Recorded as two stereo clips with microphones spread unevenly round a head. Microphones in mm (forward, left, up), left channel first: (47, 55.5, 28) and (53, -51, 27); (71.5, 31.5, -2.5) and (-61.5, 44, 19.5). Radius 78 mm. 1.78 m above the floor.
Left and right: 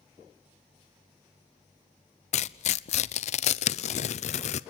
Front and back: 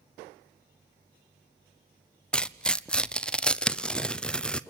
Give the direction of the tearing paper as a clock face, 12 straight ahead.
9 o'clock.